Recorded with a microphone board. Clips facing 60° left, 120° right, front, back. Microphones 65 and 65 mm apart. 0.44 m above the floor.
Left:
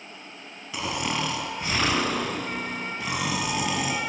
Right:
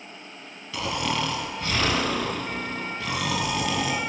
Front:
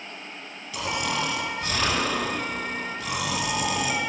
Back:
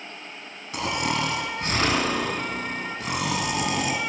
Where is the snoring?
135° left, 1.6 m.